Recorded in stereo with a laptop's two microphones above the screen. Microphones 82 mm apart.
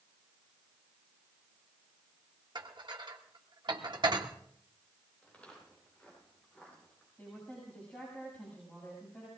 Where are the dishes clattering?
60° right (ahead or behind), 1.4 m.